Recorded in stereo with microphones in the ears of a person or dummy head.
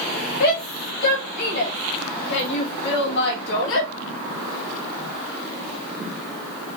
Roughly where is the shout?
Left.